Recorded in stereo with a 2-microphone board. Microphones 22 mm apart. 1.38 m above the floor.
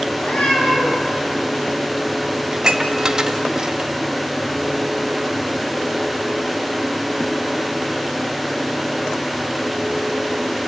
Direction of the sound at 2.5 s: 25° right (ahead or behind).